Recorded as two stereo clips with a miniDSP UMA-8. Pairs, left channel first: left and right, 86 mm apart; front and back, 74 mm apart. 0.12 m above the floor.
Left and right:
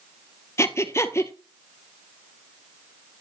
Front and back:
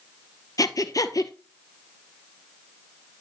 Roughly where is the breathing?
Ahead left.